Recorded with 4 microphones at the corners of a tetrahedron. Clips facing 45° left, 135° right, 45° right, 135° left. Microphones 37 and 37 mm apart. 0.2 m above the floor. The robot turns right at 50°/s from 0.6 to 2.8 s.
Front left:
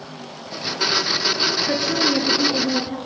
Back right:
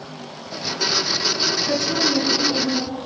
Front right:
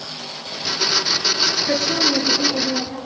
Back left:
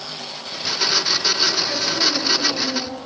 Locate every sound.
1.7 s a woman speaking: 25° right, 3.5 m; by 3.0 s 35° left, 3.5 m